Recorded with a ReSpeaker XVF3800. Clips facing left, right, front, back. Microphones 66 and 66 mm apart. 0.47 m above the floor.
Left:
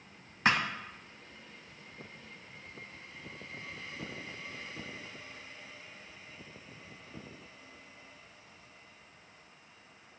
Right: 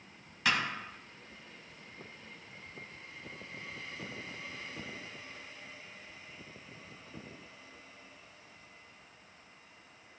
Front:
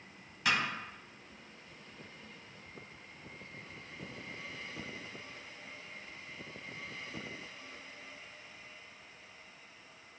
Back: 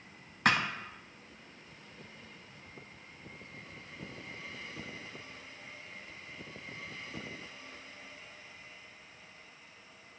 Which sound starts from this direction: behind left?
A thud, at 0.5 s.